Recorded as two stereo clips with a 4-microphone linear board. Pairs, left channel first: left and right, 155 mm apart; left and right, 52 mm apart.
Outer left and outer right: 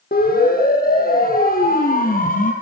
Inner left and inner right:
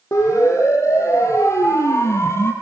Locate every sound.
0.1 s a siren: 75° left (ahead or behind), 7 m; by 2.5 s 60° left (ahead or behind), 4.5 m